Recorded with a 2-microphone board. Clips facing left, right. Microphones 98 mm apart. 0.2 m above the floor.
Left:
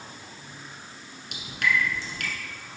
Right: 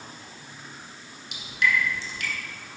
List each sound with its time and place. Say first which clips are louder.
1.3 s dripping: right 1 dB; 60° left (ahead or behind), 1.5 m